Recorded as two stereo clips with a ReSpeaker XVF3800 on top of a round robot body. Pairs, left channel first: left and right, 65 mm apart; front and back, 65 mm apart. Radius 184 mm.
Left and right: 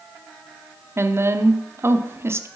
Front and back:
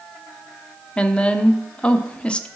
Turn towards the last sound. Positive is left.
turn(degrees=-65)